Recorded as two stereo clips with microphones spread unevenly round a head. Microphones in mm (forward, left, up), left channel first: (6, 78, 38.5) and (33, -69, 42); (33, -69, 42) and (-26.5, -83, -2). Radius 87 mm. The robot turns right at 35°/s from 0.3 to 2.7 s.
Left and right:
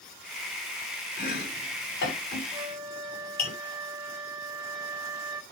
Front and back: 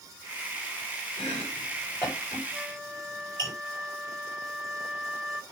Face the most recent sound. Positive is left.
turn(degrees=-25)